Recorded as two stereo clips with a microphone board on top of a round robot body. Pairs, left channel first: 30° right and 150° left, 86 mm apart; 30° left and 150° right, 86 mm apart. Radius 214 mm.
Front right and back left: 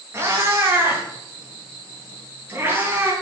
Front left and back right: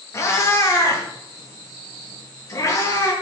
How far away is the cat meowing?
About 2 m.